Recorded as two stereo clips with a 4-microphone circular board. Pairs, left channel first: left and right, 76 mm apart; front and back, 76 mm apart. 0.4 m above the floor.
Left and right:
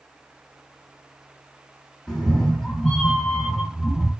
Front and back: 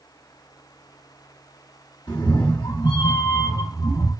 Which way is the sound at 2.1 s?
5° left.